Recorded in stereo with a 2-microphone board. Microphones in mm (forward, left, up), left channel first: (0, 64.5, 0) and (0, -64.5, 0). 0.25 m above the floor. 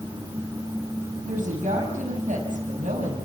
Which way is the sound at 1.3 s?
80° right.